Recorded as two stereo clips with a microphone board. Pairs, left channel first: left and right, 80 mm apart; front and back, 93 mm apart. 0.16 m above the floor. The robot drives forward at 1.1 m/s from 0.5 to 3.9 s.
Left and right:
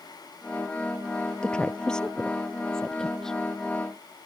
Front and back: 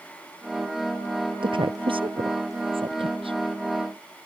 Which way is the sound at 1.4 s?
170° left.